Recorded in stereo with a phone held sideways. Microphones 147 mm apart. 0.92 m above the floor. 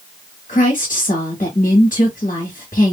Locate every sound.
0.5 s a woman speaking: 65° left (ahead or behind), 1.7 m